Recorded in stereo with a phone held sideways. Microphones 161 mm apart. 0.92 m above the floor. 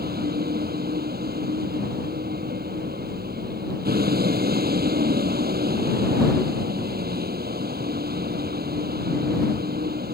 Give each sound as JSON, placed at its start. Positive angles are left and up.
{"t": 0.0, "sound": "a vehicle", "side_deg": -75}